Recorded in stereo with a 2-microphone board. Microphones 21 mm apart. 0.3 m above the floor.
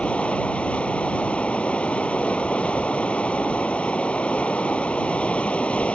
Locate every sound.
0.0 s running water: 75° left (ahead or behind)